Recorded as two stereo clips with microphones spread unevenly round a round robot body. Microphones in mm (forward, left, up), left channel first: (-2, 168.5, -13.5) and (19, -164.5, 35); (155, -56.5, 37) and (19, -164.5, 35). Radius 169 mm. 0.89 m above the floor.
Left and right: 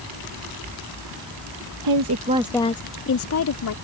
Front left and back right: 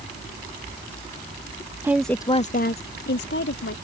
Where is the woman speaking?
65° right; by 3.8 s 60° left.